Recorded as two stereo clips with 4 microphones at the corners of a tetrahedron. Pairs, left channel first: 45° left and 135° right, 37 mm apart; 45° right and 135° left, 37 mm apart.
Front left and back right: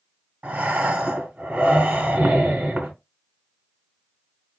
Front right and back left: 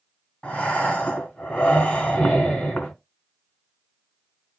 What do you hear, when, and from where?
0.4 s breathing: 95° right, 1.3 m